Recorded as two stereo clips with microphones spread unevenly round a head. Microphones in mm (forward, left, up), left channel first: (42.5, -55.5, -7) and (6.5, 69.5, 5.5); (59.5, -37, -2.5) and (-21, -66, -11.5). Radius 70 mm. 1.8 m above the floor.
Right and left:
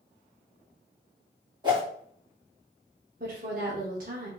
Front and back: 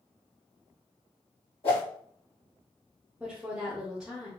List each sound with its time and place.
1.6 s a whoosh: 50° left, 2.5 m
3.2 s a woman speaking: 115° left, 1.0 m